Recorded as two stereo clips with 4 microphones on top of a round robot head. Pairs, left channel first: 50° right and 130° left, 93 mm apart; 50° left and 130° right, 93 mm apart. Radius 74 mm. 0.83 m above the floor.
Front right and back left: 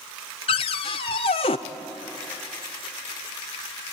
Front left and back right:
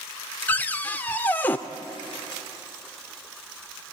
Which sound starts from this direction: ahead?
A cupboard door, at 0.5 s.